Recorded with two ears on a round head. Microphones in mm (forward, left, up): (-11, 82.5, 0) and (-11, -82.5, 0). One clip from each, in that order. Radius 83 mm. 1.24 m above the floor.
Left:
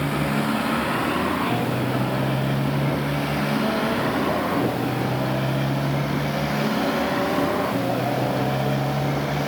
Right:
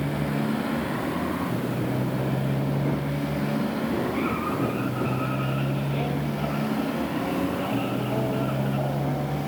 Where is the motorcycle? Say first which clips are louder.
Left 5 dB; 35° left (ahead or behind); by 9.5 s 50° left (ahead or behind).